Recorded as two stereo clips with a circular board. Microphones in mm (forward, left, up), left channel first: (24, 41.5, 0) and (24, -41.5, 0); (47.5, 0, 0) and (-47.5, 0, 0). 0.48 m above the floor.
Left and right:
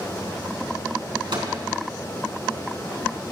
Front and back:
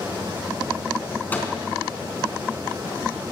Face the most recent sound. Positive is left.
turn(degrees=-70)